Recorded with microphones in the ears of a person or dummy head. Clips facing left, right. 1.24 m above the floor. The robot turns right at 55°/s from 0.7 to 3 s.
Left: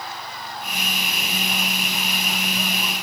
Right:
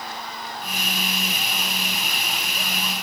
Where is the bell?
I don't hear a bell.